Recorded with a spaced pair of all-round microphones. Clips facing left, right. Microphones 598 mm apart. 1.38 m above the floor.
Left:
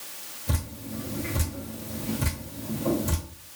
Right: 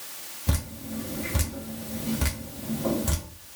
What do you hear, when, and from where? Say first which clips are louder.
0.5 s dripping: right 2 dB; 75° right (ahead or behind), 1.2 m